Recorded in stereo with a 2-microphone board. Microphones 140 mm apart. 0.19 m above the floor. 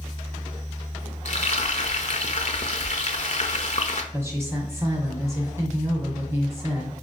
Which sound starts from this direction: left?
Frying, at 1.2 s.